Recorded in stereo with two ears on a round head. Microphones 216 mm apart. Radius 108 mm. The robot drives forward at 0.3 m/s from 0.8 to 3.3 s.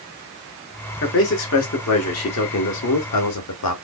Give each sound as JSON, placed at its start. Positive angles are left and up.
{"t": 1.0, "sound": "a man speaking", "side_deg": 55, "distance_m": 1.4}